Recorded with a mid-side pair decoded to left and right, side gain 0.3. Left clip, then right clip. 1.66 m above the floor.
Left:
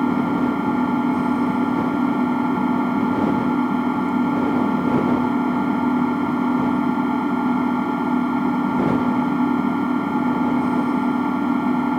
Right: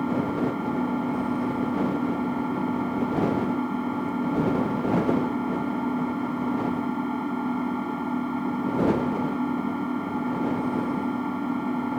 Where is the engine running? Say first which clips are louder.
Left 6 dB; 70° left.